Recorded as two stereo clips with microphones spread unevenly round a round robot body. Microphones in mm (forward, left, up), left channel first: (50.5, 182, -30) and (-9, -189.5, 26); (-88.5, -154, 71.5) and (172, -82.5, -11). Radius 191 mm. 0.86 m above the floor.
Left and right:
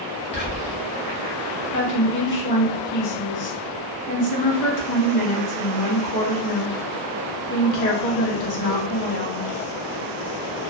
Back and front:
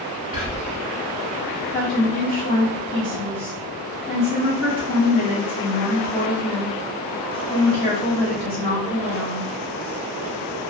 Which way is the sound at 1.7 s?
100° left.